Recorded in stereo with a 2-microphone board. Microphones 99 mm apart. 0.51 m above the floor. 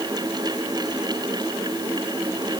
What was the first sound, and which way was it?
Only background noise.